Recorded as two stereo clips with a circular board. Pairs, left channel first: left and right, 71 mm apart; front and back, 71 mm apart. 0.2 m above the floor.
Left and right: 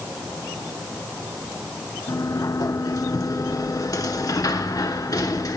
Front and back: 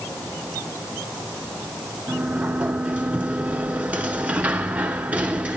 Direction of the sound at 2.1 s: 110° left.